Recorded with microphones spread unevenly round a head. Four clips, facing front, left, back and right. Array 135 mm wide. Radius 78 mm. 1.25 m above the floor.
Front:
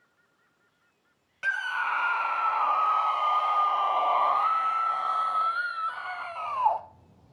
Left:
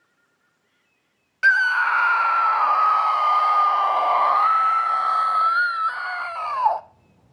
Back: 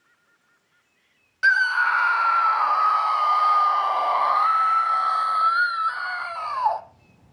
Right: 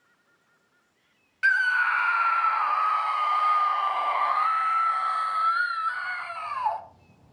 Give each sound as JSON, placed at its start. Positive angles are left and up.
{"t": 1.4, "sound": "a scream", "azimuth_deg": 95, "distance_m": 0.6}